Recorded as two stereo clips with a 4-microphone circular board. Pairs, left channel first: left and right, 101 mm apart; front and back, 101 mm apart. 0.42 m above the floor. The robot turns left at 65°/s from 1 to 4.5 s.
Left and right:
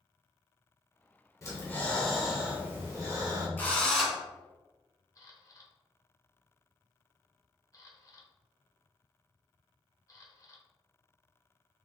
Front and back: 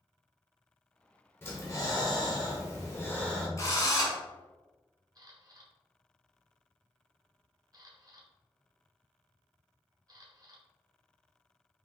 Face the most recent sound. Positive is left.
turn(degrees=140)